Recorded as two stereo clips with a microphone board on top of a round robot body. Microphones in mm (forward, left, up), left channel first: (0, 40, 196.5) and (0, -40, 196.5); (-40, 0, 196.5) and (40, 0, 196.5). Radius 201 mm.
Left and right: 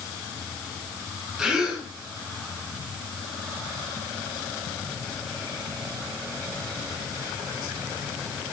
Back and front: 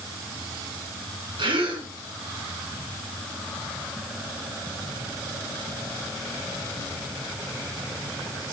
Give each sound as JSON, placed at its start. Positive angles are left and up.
{"t": 1.4, "sound": "a gasp", "azimuth_deg": -5, "distance_m": 4.5}